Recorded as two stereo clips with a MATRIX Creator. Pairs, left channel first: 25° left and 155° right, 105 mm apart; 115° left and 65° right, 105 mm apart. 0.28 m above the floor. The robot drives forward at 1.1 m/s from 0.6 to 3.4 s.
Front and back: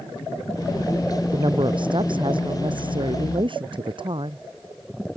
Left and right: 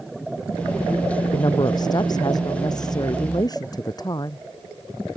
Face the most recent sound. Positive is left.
turn(degrees=165)